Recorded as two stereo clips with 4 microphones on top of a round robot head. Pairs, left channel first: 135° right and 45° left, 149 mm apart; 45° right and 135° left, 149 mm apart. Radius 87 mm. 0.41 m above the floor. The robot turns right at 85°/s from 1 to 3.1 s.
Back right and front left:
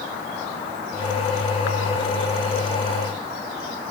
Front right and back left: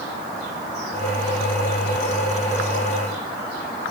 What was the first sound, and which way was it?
Only background noise.